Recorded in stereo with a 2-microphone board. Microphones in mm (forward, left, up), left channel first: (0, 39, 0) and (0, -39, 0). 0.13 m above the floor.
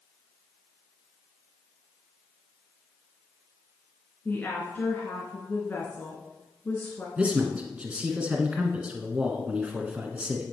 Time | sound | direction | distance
4.2 | a woman speaking | 30° left (ahead or behind) | 1.7 m
7.2 | a man speaking | 15° right (ahead or behind) | 1.3 m